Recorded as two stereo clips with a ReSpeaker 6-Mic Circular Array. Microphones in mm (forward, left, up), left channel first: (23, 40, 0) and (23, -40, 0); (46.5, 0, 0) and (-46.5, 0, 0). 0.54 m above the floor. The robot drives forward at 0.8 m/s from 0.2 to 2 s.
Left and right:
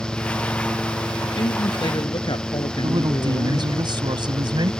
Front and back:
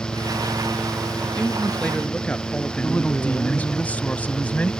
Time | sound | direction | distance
1.2 | a man speaking | 75° left | ?
2.8 | a woman speaking | 75° right | ?